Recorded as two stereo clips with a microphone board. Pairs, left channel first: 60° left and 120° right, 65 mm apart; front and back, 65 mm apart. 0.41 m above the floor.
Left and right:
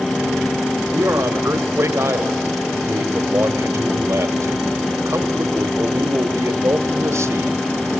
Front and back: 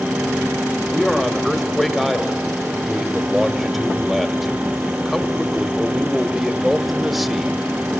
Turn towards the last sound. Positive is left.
turn(degrees=-95)